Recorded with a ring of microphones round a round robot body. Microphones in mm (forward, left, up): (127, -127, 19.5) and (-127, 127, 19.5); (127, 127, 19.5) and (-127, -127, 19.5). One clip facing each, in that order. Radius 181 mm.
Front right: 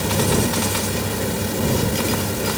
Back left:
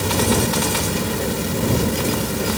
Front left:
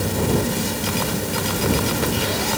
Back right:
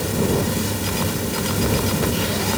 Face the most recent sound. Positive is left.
No sound to turn to.